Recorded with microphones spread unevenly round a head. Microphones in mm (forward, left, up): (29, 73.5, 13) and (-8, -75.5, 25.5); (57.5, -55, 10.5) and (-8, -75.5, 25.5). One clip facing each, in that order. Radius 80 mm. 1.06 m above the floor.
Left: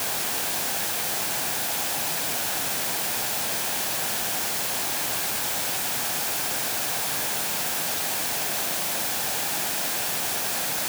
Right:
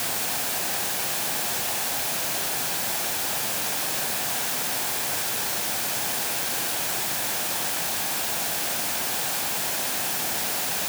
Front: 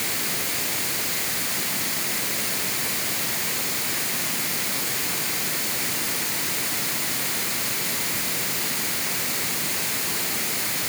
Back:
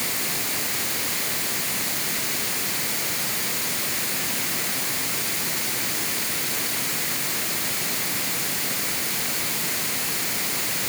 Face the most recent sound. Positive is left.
No sound to turn to.